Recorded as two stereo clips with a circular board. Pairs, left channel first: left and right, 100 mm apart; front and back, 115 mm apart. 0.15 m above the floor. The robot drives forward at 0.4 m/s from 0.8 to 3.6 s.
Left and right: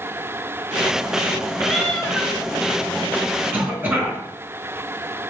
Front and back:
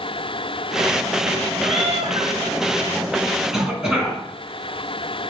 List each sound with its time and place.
1.6 s a cat meowing: 170° left, 1.0 m; by 2.3 s 175° left, 1.2 m
3.5 s a cough: 100° right, 1.3 m; by 4.2 s 105° right, 1.3 m